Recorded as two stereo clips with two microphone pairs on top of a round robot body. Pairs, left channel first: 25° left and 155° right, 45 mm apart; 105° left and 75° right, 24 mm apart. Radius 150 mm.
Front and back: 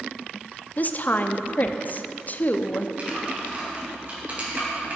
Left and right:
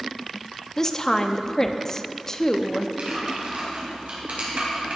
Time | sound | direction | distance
0.8 | a woman speaking | 35° left | 1.0 m
3.0 | typing on a keyboard | 105° right | 3.5 m